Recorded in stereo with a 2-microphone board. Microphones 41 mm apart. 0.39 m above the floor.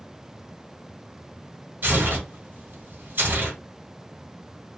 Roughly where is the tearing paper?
Right.